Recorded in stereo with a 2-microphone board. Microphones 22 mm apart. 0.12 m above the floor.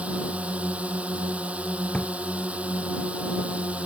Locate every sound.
0.0 s a drone: 70° right (ahead or behind)
1.9 s a drawer: 60° left (ahead or behind)